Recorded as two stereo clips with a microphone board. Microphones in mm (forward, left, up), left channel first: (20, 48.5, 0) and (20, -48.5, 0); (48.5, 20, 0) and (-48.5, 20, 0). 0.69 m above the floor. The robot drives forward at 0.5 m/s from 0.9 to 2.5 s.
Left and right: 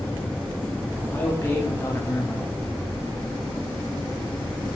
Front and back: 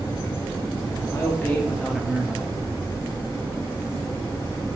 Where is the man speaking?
40° left, 0.8 m; by 2.5 s 125° left, 0.8 m.